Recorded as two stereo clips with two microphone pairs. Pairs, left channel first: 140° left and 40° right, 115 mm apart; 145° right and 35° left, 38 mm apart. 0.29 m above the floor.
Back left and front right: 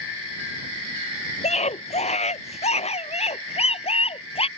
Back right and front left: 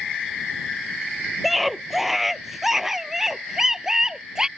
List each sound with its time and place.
1.4 s a scream: 125° left; by 4.5 s 105° left